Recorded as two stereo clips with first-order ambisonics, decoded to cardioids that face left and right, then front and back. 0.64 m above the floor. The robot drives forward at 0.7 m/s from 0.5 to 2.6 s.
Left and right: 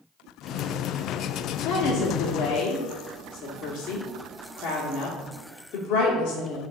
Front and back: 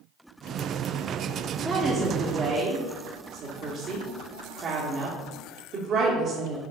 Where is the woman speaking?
95° left, 1.0 m; by 6.6 s 130° left, 1.3 m.